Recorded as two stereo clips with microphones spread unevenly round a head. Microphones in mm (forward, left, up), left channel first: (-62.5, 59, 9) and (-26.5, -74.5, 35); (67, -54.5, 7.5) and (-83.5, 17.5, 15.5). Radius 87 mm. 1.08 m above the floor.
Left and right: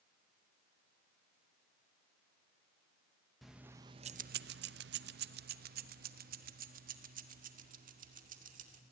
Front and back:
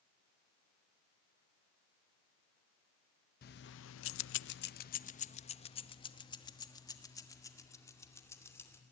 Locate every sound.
3.4 s keys jangling: 15° left, 0.6 m; by 8.8 s 100° right, 2.5 m